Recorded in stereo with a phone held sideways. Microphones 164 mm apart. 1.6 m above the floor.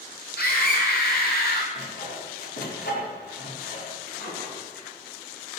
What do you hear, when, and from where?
0.4 s a scream: 70° left (ahead or behind), 6.5 m; by 1.6 s 75° left (ahead or behind), 5.5 m
1.8 s sawing: 85° left, 4.5 m
4.1 s a drawer: 80° left, 8 m